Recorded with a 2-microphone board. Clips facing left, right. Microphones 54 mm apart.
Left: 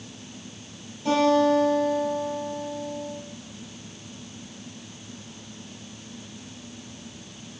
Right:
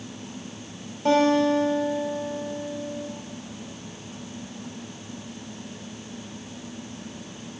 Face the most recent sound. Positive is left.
turn(degrees=-60)  # may be behind; listen again after turning